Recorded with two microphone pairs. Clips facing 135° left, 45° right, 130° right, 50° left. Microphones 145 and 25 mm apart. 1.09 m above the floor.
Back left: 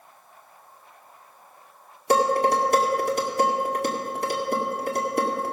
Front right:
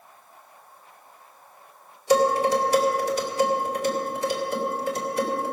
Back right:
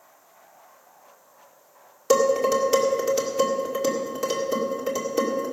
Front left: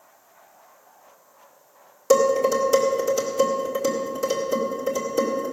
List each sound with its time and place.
2.1 s dishes clattering: 170° left, 1.9 m